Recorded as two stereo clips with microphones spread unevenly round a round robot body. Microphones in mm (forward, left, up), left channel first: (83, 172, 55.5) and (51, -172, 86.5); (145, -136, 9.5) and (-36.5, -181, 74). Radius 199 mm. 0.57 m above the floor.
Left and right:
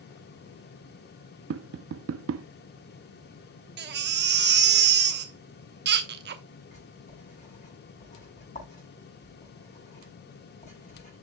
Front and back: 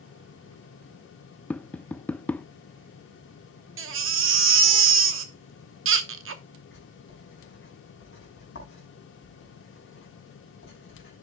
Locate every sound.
1.5 s tapping: 50° right, 0.6 m
3.8 s a baby crying: 155° right, 1.0 m
6.7 s writing: 15° left, 5.5 m